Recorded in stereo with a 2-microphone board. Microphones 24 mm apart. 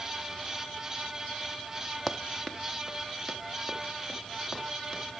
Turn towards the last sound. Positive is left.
turn(degrees=25)  # may be behind; listen again after turning